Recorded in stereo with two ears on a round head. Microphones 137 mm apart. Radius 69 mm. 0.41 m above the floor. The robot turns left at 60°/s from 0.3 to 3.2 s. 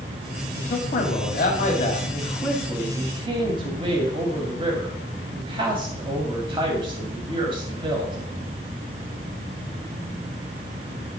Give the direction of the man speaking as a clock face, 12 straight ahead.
8 o'clock.